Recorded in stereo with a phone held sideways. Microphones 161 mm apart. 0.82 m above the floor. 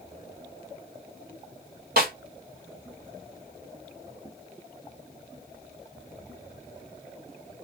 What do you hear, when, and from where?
2.0 s a snare drum: 65° right (ahead or behind), 1.9 m